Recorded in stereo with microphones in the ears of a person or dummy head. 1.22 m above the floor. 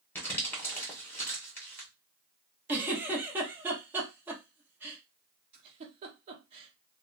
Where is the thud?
No thud in this recording.